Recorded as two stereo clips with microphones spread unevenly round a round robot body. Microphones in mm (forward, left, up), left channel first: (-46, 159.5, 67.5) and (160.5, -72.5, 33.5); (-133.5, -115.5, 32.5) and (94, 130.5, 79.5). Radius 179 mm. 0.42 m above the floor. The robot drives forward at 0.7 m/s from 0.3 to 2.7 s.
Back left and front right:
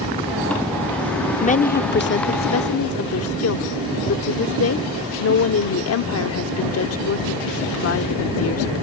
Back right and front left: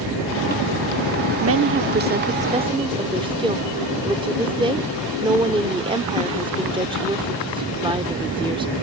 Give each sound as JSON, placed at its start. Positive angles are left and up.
{"t": 1.4, "sound": "a woman speaking", "azimuth_deg": 70}